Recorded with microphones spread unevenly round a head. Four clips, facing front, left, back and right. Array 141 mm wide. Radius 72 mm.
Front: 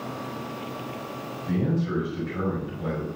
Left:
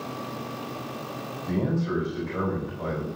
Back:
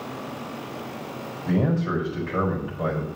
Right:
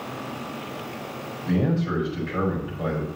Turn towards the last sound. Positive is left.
turn(degrees=-175)